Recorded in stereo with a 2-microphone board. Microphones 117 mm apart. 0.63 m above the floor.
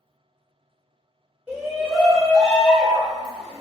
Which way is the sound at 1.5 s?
5° right (ahead or behind).